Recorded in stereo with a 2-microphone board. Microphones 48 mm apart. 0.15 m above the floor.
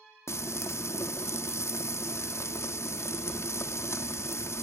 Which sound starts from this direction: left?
Frying, at 0.3 s.